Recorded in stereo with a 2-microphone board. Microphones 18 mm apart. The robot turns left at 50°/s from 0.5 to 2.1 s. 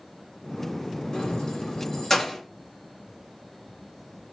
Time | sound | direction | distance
1.1 | keys jangling | 70° left (ahead or behind) | 1.6 m